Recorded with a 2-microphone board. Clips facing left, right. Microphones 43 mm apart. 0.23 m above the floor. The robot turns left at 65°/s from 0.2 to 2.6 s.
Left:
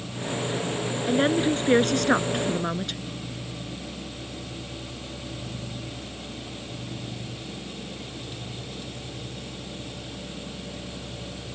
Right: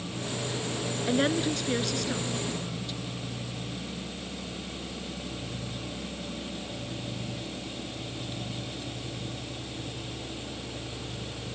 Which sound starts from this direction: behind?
A woman speaking, at 1.1 s.